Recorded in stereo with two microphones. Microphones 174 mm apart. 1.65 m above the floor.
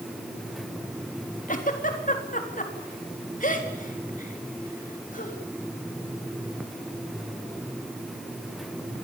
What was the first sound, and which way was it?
A giggle, 50° left (ahead or behind).